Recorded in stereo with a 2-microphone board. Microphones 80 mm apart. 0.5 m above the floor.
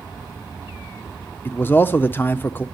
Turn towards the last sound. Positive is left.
turn(degrees=25)  # may be behind; listen again after turning